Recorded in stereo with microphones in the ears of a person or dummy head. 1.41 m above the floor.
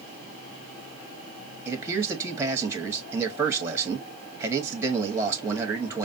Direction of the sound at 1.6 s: 15° right (ahead or behind).